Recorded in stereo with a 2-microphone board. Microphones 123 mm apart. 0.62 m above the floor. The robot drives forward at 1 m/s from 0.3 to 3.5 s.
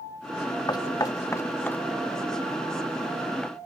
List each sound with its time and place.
0.7 s knocking: 35° left (ahead or behind); by 3.6 s 5° left (ahead or behind)